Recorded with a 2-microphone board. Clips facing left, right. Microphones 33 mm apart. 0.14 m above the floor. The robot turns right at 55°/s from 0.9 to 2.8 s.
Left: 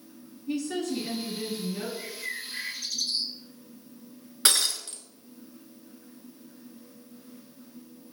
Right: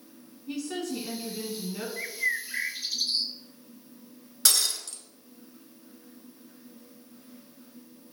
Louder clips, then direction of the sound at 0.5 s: Left 3 dB; 10° right (ahead or behind).